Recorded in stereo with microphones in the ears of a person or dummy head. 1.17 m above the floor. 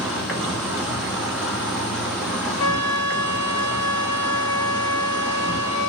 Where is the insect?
Centre (ahead or behind), 1.0 m.